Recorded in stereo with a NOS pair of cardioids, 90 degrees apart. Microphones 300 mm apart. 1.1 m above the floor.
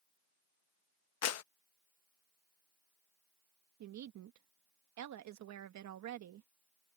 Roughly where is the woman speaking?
Right.